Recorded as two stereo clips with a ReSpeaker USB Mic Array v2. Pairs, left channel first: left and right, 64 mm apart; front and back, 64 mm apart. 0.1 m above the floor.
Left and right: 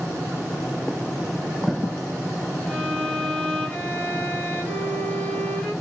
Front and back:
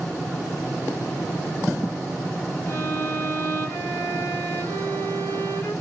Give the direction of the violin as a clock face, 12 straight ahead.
11 o'clock.